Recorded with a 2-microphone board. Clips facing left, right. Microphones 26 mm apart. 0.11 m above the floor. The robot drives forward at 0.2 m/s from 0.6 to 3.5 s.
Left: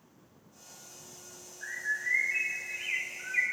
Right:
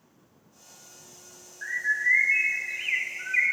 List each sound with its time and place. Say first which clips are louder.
1.6 s a bird: right 8 dB; 45° right (ahead or behind), 0.6 m